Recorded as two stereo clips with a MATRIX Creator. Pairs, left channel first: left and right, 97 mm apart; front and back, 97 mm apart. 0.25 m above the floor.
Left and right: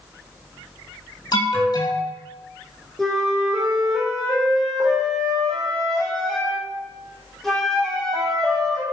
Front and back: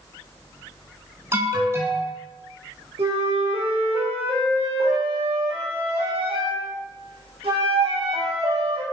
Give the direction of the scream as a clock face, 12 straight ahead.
I don't hear a scream.